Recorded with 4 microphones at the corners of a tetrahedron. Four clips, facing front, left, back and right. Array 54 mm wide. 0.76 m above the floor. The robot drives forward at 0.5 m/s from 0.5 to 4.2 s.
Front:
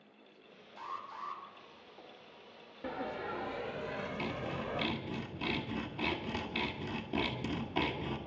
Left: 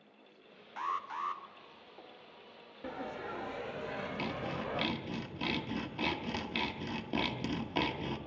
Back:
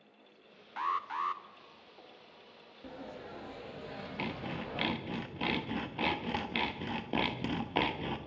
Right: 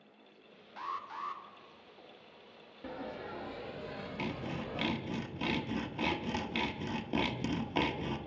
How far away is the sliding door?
About 1.1 m.